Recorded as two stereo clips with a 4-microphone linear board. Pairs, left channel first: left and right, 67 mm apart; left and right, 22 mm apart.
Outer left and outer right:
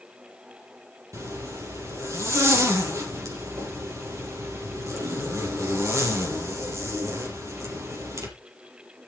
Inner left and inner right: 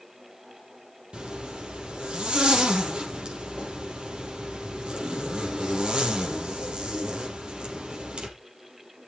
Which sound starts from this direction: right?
A zipper, at 1.1 s.